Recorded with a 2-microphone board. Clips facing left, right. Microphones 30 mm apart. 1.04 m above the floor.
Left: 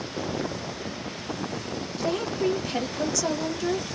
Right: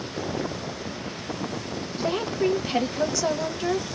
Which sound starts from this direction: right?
A woman speaking, at 2.0 s.